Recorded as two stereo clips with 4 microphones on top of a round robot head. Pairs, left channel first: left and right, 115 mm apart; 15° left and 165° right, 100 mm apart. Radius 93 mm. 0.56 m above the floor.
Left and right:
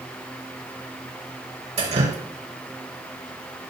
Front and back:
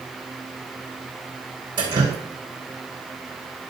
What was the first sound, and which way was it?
Dripping, 120° right.